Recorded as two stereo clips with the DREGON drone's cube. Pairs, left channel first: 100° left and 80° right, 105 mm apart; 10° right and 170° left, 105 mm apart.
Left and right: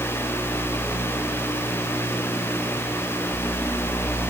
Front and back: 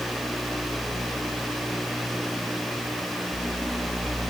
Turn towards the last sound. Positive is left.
No sound to turn to.